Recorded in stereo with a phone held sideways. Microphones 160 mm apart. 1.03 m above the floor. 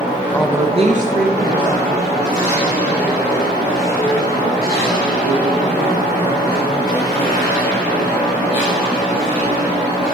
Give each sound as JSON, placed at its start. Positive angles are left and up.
{"t": 0.3, "sound": "a woman speaking", "side_deg": 10, "distance_m": 0.5}